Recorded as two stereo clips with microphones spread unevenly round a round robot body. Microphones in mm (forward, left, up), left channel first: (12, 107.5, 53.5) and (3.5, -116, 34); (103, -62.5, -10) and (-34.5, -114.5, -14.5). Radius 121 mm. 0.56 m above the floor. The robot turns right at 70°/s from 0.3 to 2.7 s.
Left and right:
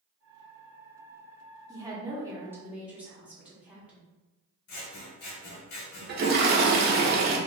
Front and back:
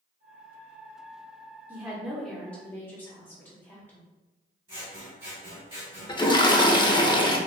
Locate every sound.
1.7 s a woman speaking: 105° right, 1.0 m; by 4.0 s 35° right, 1.0 m
4.7 s scissors: 130° left, 0.7 m
6.1 s a toilet flushing: 45° right, 0.6 m